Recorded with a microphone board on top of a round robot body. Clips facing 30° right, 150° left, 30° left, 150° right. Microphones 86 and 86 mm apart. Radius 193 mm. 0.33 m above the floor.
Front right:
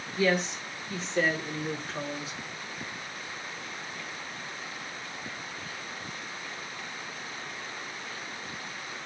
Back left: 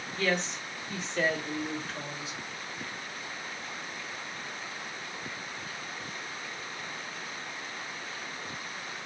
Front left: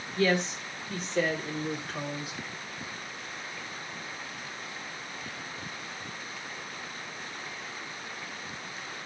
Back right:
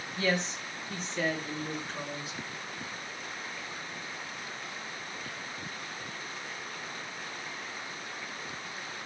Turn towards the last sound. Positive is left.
turn(degrees=10)